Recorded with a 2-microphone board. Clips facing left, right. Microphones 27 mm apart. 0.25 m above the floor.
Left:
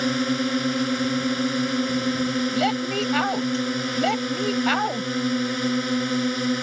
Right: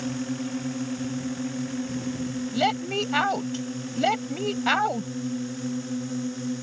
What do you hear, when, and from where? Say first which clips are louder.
0.0 s a drone: left 7 dB; 60° left (ahead or behind)
2.5 s a woman speaking: left 2 dB; 5° right (ahead or behind)